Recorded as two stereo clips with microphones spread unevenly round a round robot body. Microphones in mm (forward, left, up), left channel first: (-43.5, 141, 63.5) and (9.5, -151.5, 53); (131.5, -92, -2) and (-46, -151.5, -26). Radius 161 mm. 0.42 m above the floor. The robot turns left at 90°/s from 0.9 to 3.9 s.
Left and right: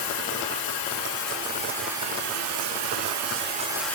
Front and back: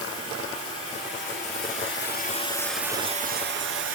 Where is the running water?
95° left, 2.5 m; by 4.0 s 175° right, 2.5 m.